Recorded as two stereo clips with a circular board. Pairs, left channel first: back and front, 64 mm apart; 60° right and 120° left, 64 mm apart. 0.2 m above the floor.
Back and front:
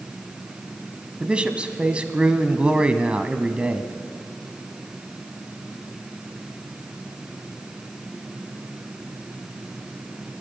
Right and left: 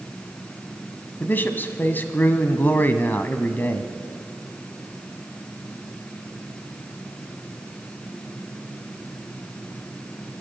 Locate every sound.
1.2 s a man speaking: 55° right, 1.2 m